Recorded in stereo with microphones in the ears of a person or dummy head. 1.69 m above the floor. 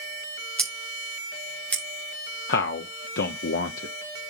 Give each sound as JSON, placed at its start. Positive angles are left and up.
{"t": 0.6, "sound": "scissors", "side_deg": 10, "distance_m": 2.5}
{"t": 2.5, "sound": "a man speaking", "side_deg": 70, "distance_m": 1.0}